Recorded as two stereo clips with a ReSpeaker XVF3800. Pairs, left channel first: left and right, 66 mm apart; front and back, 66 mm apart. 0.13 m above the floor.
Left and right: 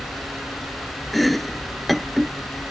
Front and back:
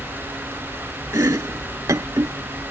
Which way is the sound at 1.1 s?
175° left.